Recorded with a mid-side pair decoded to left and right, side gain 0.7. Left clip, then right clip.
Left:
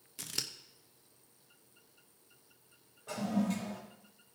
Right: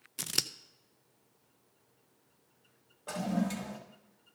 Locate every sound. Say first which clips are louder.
0.2 s scissors: right 5 dB; 30° right, 0.5 m
3.1 s a toilet flushing: right 1 dB; 35° right, 2.5 m